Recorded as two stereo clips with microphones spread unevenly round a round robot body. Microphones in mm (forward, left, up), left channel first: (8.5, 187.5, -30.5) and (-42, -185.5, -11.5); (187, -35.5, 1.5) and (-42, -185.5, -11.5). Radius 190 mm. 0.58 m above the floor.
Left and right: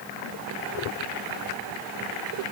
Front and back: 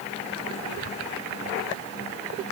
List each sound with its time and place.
Only background noise.